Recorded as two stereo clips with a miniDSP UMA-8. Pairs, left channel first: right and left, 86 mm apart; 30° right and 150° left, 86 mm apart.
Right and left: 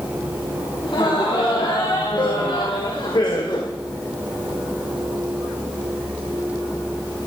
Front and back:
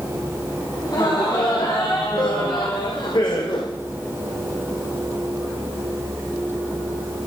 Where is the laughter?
70° right, 4 m; by 3.7 s 55° right, 1.6 m.